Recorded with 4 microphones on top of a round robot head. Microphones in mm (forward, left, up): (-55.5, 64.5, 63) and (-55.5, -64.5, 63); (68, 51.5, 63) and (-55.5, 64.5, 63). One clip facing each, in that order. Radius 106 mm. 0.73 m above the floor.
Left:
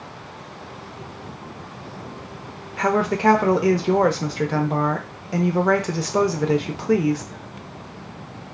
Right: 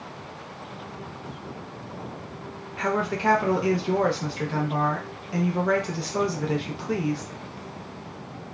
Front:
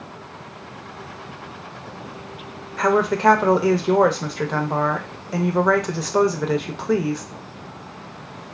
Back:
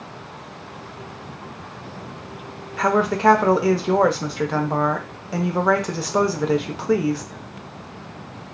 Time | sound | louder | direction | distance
2.8 | a woman speaking | left 6 dB, front 1 dB | 85° left | 0.6 m